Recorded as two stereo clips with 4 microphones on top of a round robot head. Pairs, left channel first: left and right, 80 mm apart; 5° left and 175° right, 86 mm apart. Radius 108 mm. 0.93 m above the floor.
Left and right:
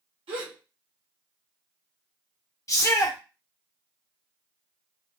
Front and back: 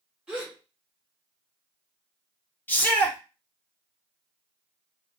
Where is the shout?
70° left, 0.8 m.